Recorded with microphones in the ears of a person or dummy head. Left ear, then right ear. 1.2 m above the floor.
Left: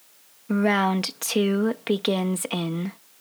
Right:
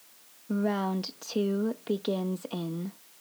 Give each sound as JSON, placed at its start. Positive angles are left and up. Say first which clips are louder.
{"t": 0.5, "sound": "a woman speaking", "louder": "left 8 dB", "side_deg": 55}